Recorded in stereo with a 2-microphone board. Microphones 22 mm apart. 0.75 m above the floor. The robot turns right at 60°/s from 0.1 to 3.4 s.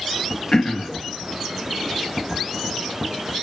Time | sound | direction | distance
0.5 | throat clearing | 30° left (ahead or behind) | 1.2 m